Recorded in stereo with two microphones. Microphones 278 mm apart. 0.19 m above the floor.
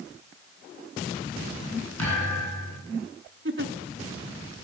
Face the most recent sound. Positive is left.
turn(degrees=-45)  # may be behind; listen again after turning